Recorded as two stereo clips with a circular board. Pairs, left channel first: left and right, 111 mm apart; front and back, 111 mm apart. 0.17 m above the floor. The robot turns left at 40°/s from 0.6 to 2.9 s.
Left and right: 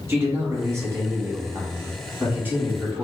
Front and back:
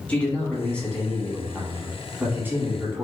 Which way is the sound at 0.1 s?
60° right.